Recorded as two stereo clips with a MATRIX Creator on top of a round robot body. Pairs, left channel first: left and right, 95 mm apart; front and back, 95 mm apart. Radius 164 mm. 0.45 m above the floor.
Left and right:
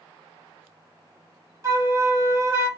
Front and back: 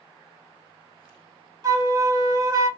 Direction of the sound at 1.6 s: 140° right.